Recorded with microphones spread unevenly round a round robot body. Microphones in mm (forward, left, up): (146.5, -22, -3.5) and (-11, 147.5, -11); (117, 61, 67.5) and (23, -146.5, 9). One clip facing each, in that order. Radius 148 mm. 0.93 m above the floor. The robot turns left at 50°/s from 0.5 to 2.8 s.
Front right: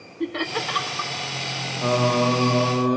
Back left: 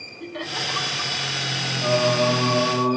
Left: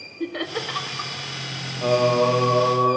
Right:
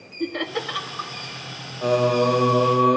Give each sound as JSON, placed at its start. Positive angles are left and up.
{"t": 0.2, "sound": "laughter", "azimuth_deg": -25, "distance_m": 1.2}
{"t": 1.8, "sound": "singing", "azimuth_deg": -45, "distance_m": 0.6}